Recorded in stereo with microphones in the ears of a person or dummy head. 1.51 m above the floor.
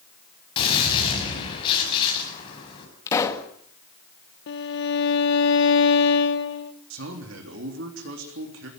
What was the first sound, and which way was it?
A gunshot, 30° left (ahead or behind).